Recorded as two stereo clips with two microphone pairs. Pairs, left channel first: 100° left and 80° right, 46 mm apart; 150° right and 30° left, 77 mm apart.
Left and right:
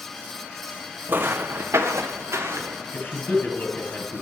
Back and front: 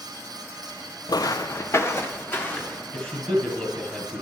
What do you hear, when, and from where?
1.1 s footsteps: 125° right, 0.6 m; by 2.8 s 85° right, 1.7 m
2.9 s a man speaking: 140° left, 2.5 m